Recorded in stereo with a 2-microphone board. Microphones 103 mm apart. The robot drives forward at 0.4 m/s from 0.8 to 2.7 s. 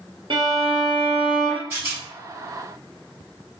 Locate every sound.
0.3 s a violin: 60° right (ahead or behind), 1.2 m; by 1.6 s 70° right (ahead or behind), 1.1 m
1.7 s a rattle: 20° right (ahead or behind), 1.8 m